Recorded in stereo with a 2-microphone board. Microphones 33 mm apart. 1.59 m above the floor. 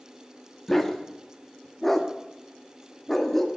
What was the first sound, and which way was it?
A dog barking, 5° left (ahead or behind).